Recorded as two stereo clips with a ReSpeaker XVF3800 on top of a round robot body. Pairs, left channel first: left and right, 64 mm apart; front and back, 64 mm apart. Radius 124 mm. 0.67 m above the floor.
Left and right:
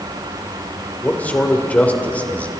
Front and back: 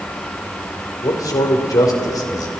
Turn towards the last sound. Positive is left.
turn(degrees=20)